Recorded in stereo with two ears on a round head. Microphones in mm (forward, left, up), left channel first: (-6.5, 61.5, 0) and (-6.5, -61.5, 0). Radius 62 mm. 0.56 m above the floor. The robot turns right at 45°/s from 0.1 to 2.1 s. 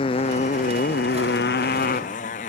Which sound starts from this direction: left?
A motorcycle, at 0.0 s.